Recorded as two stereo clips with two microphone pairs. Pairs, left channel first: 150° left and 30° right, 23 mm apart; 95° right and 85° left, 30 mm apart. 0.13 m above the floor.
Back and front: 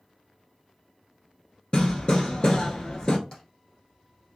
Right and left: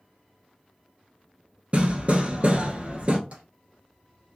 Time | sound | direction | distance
1.7 | hammering | 115° left | 1.0 m
3.3 | tapping | 105° left | 2.5 m